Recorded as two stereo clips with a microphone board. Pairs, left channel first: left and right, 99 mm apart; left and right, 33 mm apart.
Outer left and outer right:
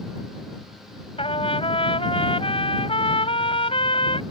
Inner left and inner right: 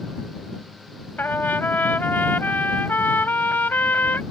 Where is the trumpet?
75° left (ahead or behind).